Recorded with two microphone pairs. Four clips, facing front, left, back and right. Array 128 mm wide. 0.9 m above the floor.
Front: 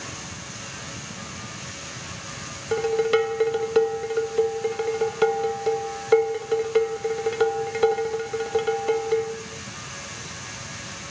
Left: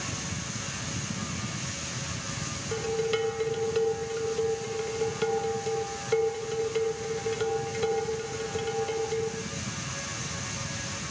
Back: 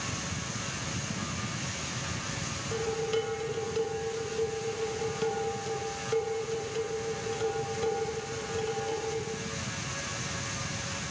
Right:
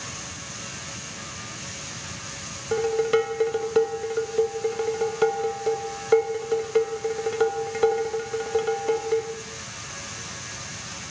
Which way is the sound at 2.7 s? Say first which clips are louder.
Right 7 dB, front 10 dB; 40° right.